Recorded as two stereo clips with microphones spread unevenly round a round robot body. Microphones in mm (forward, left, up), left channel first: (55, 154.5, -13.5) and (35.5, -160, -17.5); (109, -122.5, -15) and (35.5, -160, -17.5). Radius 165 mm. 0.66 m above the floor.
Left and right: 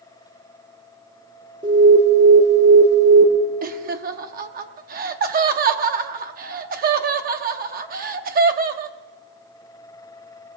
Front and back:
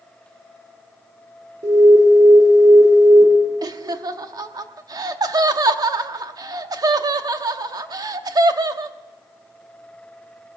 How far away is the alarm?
About 1.9 m.